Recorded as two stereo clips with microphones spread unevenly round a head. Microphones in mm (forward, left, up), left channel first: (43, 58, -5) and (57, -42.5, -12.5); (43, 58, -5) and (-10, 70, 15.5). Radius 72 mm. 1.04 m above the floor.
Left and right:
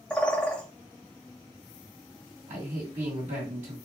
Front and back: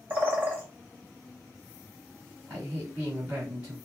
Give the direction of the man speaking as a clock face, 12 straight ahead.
4 o'clock.